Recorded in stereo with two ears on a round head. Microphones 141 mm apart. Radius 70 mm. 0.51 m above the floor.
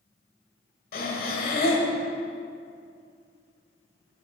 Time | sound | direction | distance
0.9 | breathing | 60° left (ahead or behind) | 1.6 m